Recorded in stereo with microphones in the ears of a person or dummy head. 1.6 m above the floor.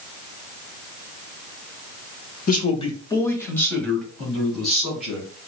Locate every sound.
2.5 s a man speaking: 45° left (ahead or behind), 0.8 m; by 5.3 s centre (ahead or behind), 2.5 m